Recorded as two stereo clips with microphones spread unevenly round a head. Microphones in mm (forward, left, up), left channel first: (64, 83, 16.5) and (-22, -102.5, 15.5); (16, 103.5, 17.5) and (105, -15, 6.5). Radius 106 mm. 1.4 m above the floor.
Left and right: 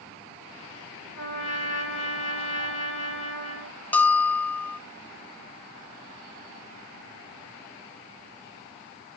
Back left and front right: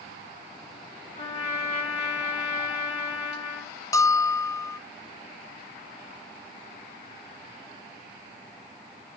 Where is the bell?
135° left, 0.6 m.